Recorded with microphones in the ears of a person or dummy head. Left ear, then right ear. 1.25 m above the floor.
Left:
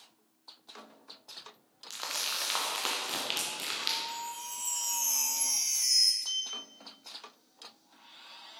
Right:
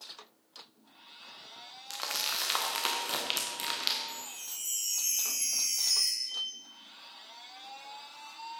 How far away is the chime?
About 3 m.